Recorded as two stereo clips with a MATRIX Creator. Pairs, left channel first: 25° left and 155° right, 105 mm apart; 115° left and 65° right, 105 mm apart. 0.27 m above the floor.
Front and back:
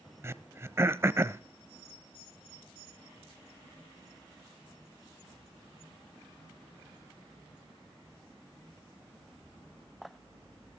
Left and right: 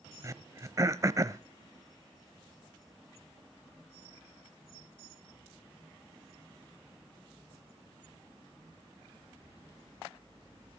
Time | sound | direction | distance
0.2 | throat clearing | 105° right | 0.6 m